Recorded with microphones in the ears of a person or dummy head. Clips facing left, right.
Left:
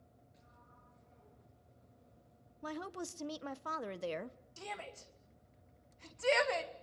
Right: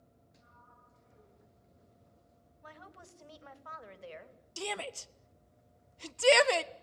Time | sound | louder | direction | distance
0.3 | a sliding door | right 4 dB | 75° right (ahead or behind) | 10 m
2.6 | a woman speaking | left 12 dB | 70° left (ahead or behind) | 1.0 m
4.6 | a shout | right 8 dB | 65° right (ahead or behind) | 1.2 m